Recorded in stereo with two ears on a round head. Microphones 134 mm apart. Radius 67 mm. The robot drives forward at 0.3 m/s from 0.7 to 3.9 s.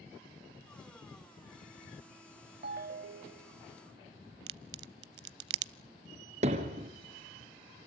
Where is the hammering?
45° right (ahead or behind), 3 m.